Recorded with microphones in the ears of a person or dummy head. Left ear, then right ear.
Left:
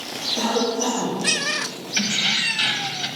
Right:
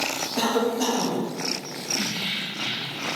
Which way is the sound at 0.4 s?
80° right.